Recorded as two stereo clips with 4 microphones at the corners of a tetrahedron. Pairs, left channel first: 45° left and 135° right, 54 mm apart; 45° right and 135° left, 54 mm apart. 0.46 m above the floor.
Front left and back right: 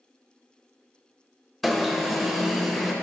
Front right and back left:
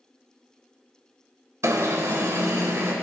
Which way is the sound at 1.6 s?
135° left.